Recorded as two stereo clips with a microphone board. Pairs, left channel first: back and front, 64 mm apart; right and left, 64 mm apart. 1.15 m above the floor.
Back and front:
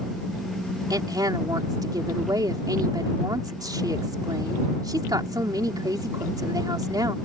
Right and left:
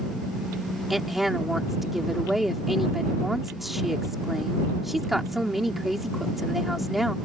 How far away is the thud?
I don't hear a thud.